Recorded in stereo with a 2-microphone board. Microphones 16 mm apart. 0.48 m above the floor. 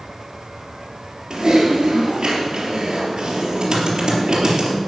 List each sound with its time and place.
1.3 s typing on a keyboard: 40° right (ahead or behind), 4 m